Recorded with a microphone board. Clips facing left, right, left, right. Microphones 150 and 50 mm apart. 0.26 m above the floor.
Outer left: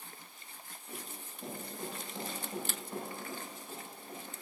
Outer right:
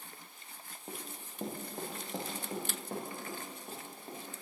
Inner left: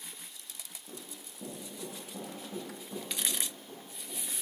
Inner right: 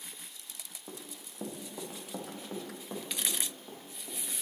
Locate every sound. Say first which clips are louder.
0.9 s running footsteps: outer right 2 dB, inner right 2 dB; 60° right (ahead or behind), 2.5 m; by 4.2 s 50° right (ahead or behind), 5 m